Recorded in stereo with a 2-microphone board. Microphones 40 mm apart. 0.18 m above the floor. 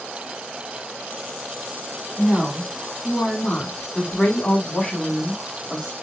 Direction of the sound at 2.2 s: 5° right (ahead or behind).